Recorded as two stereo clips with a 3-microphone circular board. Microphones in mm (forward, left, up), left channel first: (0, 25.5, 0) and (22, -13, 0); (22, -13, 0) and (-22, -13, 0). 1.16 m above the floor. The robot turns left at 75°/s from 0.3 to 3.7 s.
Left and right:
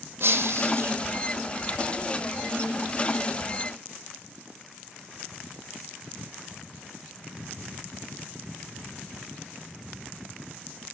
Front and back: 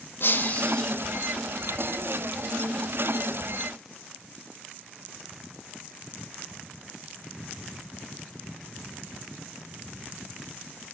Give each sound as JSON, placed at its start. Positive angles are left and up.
{"t": 0.2, "sound": "breaking glass", "azimuth_deg": -30, "distance_m": 5.0}